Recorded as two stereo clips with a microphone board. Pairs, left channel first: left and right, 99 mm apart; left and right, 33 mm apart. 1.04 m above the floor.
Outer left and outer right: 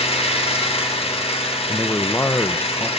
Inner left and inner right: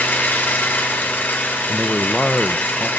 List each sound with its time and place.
0.0 s an engine running: 85° left, 3.5 m
1.7 s a man speaking: 20° left (ahead or behind), 0.8 m